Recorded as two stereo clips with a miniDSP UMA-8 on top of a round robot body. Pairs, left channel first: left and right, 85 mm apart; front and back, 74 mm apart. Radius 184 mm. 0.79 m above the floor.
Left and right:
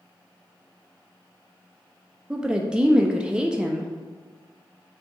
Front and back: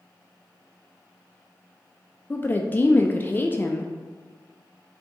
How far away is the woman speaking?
About 0.5 m.